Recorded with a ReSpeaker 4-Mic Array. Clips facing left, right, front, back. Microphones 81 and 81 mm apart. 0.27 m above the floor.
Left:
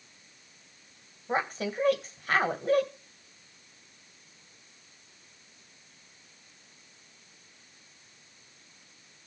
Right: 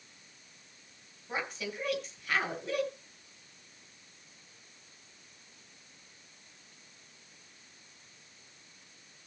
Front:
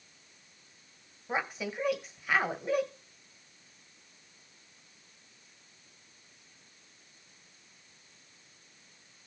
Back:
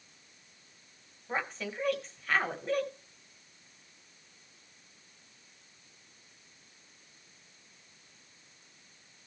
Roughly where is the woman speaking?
Left.